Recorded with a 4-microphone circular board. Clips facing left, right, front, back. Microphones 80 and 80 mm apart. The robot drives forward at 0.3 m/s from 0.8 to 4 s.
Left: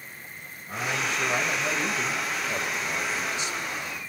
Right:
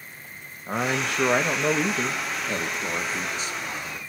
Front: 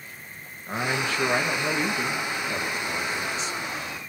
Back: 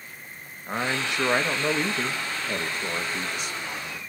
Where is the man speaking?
105° right, 1.0 m; by 4.0 s 145° right, 1.5 m.